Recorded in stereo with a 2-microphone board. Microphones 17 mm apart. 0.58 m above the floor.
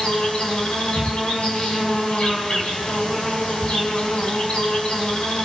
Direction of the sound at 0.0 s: 65° left (ahead or behind).